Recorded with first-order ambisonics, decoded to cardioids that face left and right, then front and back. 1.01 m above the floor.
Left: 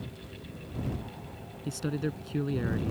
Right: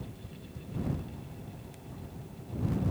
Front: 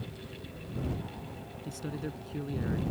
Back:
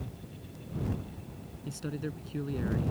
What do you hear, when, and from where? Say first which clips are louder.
1.6 s a man speaking: left 15 dB, back 1 dB; 95° left; by 2.9 s 90° left